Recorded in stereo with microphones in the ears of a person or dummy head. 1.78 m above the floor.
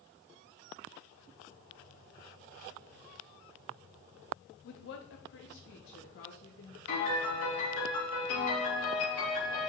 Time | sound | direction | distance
4.6 | a woman speaking | 45° left (ahead or behind) | 0.7 m
6.9 | a piano | 65° left (ahead or behind) | 3 m